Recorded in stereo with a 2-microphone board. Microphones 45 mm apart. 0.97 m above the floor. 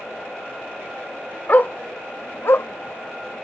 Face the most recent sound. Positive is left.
turn(degrees=65)  # may be behind; listen again after turning